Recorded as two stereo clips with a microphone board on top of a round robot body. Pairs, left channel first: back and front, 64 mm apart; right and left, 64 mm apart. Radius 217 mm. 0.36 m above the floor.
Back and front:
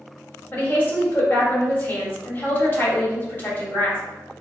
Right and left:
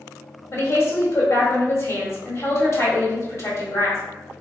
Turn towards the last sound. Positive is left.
turn(degrees=-125)